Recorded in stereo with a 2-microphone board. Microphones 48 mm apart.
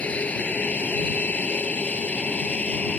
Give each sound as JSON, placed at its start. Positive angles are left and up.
{"t": 0.0, "sound": "an aircraft", "side_deg": 30}